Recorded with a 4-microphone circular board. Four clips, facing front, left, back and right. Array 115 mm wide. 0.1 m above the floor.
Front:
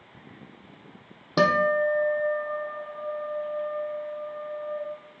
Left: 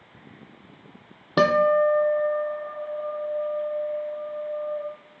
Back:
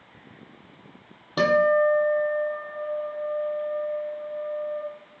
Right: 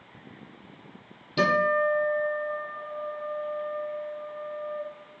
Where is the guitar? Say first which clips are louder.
Left 5 dB, back 2 dB; 75° left, 0.6 m.